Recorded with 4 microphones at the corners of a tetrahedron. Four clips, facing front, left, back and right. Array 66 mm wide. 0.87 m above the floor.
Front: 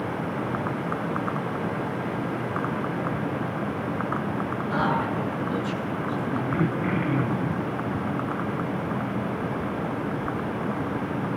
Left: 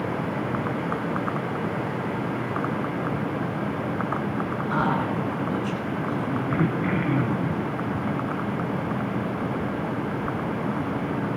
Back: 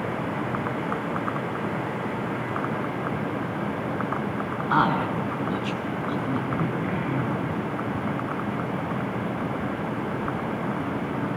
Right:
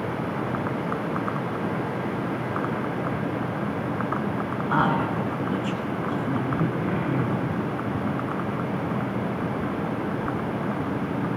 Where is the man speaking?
160° right, 8.5 m; by 6.4 s 165° right, 9 m.